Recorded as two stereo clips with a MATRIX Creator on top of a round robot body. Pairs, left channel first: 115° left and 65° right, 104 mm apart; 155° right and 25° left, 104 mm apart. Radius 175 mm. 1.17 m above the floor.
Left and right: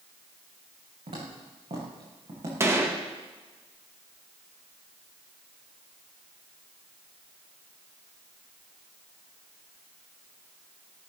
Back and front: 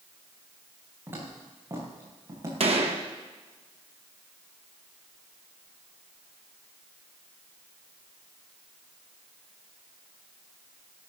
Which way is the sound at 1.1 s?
40° right.